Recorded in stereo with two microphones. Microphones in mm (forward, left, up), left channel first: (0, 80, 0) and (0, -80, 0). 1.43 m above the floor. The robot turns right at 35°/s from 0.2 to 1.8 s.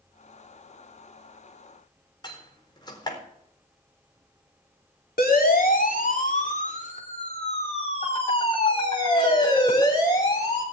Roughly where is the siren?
Left.